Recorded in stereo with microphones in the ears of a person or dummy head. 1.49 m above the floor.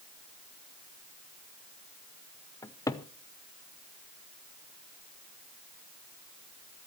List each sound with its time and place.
2.6 s a cupboard door: 15° left (ahead or behind), 0.7 m